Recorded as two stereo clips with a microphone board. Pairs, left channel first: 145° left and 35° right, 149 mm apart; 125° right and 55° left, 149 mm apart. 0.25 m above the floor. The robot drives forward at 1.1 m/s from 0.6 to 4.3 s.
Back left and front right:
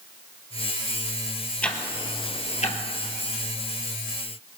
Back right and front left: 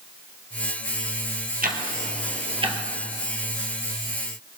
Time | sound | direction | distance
1.6 | ticking | 65° left | 1.6 m